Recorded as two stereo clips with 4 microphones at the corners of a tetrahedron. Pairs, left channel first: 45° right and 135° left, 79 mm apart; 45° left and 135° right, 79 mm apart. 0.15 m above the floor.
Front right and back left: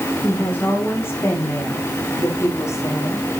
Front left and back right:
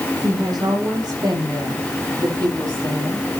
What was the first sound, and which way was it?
A woman speaking, 105° right.